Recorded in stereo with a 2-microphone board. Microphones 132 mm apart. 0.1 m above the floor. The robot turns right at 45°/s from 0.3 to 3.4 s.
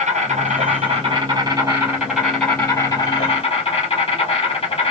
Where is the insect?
90° right, 2.0 m; by 4.9 s 50° left, 2.0 m.